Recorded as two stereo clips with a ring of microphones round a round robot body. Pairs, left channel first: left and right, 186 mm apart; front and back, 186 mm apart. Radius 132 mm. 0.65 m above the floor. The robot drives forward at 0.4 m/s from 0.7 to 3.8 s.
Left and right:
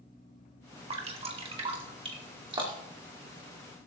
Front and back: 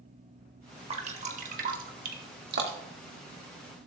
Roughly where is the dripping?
Behind right.